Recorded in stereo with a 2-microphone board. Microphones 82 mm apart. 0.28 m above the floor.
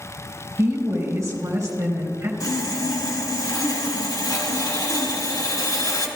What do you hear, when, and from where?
0.6 s a woman speaking: 35° right (ahead or behind), 2.5 m
2.4 s sawing: 50° left (ahead or behind), 1.3 m